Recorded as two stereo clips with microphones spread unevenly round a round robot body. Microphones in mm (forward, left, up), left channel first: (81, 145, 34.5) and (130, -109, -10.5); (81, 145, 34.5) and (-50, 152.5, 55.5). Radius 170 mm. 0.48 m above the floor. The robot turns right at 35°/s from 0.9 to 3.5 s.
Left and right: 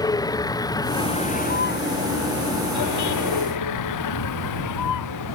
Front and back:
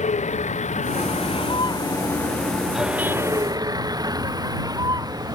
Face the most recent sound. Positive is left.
turn(degrees=115)